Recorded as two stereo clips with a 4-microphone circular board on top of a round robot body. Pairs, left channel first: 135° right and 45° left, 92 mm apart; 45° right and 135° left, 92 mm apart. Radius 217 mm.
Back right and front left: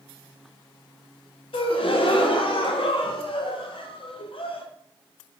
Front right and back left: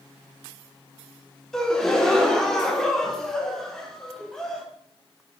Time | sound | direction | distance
1.5 | a gasp | 130° right | 0.8 m